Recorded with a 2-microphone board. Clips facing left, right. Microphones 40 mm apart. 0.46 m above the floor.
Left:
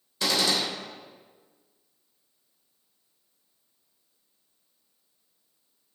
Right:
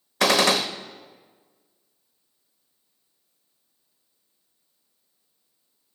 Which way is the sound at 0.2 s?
75° right (ahead or behind).